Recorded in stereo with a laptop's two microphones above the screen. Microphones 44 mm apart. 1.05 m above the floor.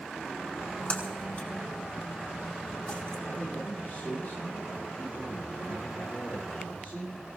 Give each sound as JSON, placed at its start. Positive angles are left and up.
{"t": 0.5, "sound": "a splash", "side_deg": 40, "distance_m": 4.5}
{"t": 3.3, "sound": "a man speaking", "side_deg": 40, "distance_m": 8.5}